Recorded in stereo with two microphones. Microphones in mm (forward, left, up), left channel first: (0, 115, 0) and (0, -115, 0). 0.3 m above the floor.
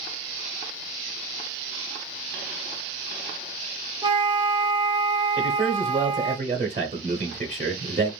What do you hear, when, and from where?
4.0 s a flute: 25° right (ahead or behind), 0.5 m
5.4 s a man speaking: 35° right (ahead or behind), 1.0 m